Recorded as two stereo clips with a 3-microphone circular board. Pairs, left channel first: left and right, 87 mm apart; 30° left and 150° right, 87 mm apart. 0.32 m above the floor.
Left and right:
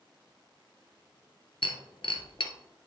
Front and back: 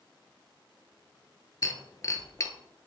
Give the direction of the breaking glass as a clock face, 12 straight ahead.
9 o'clock.